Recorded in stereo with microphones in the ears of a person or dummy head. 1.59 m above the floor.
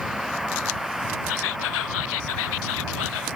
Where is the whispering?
70° left (ahead or behind).